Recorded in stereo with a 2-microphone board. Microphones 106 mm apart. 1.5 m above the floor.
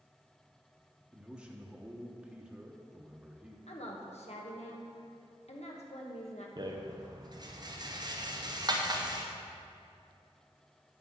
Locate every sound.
1.1 s a man speaking: 5° right (ahead or behind), 0.8 m
3.7 s a woman speaking: 80° left, 1.4 m
6.6 s a rattle: 40° right (ahead or behind), 0.9 m